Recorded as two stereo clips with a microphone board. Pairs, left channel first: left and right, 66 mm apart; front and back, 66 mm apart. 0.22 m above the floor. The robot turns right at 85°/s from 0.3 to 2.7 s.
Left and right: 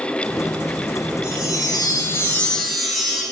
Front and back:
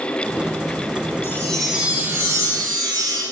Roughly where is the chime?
Ahead left.